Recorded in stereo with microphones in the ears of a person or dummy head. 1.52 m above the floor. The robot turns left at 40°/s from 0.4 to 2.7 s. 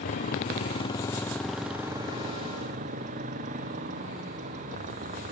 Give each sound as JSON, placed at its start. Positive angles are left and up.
{"t": 0.0, "sound": "a motorcycle", "side_deg": 50}